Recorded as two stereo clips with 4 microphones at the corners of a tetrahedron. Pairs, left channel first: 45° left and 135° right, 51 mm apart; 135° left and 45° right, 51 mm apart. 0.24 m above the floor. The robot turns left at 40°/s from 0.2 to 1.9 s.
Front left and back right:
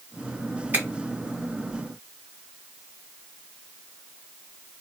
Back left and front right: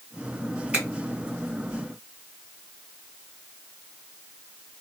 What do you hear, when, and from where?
0.7 s a finger snap: 100° right, 1.9 m; by 0.8 s 105° right, 1.9 m